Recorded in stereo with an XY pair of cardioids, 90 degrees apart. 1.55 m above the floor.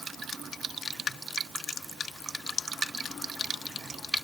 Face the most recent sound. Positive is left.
No sound to turn to.